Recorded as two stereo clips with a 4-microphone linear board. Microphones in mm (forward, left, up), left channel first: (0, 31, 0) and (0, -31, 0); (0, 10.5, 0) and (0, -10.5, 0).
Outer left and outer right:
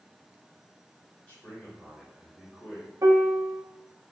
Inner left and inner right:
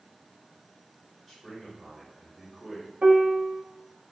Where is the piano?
60° right (ahead or behind), 0.7 m.